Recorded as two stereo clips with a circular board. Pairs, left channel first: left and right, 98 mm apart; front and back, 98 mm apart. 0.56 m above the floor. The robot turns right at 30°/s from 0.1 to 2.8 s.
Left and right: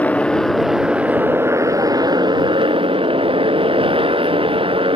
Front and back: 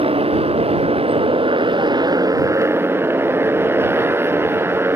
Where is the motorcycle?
165° left; by 5.0 s 115° right.